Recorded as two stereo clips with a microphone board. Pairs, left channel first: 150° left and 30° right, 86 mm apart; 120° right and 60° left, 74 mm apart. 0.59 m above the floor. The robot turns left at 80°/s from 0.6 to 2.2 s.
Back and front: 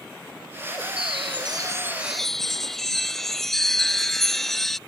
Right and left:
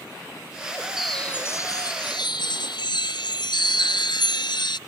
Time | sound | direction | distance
1.0 | a chime | 25° right | ?